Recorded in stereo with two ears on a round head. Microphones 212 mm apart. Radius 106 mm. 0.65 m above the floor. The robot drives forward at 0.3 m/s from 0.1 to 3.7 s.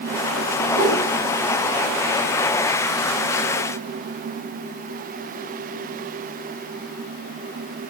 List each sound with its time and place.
0.7 s a whoosh: 40° right (ahead or behind), 1.4 m; by 1.0 s 45° right (ahead or behind), 1.3 m